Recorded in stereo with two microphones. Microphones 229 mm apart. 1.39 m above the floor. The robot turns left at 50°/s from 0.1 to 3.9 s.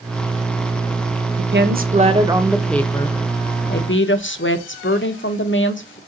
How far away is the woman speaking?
About 0.7 m.